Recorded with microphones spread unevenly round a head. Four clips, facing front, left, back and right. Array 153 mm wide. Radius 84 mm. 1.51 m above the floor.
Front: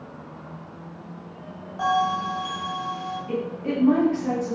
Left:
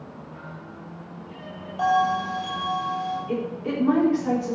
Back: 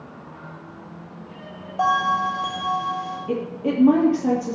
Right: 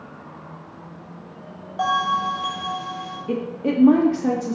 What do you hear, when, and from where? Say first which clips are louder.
1.8 s a bell: even, back 3 dB; 145° right, 7.5 m
3.3 s a woman speaking: right 3 dB, back 3 dB; 120° right, 3 m